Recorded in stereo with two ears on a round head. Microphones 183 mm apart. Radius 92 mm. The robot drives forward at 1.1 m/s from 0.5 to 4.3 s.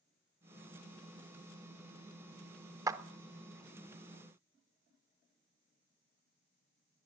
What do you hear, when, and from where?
2.9 s a clap: 15° right (ahead or behind), 0.5 m